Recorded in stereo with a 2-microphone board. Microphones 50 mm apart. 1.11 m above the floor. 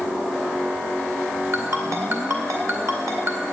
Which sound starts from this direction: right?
A ringtone, at 1.5 s.